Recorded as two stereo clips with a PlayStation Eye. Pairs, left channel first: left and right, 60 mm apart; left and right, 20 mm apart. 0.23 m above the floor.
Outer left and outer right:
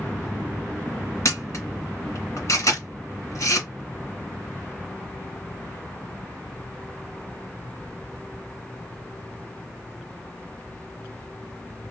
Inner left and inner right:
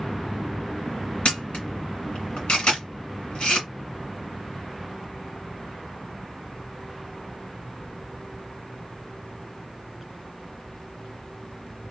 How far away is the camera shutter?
About 1.9 m.